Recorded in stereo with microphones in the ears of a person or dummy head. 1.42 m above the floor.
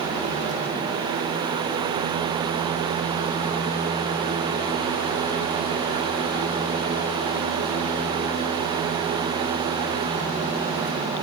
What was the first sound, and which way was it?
Only background noise.